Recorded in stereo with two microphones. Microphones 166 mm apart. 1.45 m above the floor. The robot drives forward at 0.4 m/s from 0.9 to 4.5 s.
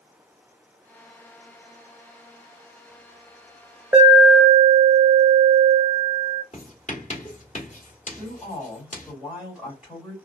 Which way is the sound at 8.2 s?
5° right (ahead or behind).